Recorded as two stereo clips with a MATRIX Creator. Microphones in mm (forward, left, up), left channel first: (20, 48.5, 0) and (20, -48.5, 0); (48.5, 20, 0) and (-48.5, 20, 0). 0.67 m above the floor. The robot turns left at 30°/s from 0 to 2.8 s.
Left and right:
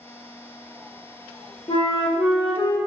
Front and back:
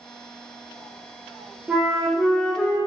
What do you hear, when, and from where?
1.7 s a flute: 100° left, 0.8 m; by 2.8 s 70° left, 0.8 m